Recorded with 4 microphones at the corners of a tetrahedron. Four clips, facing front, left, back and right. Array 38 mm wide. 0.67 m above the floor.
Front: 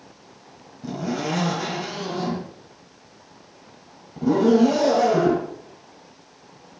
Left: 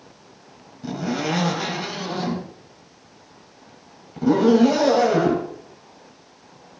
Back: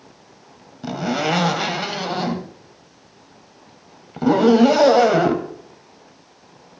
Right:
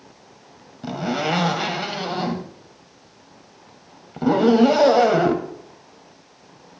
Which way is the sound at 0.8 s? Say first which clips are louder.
Right 2 dB, back 5 dB; 150° right.